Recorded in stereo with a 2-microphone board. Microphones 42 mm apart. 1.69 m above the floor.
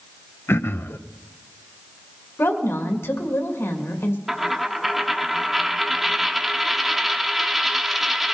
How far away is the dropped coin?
About 1.1 m.